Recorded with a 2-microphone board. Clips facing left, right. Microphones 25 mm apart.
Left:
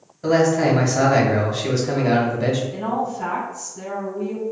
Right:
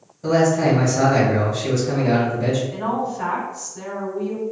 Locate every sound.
0.2 s a man speaking: 40° left (ahead or behind), 1.5 m
2.7 s a woman speaking: 50° right (ahead or behind), 1.4 m